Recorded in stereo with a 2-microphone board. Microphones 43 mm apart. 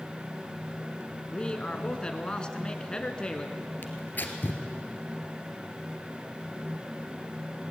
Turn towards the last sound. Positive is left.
turn(degrees=45)  # may be behind; listen again after turning